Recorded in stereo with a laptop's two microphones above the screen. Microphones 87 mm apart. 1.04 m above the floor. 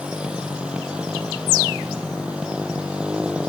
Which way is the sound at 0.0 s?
15° right (ahead or behind).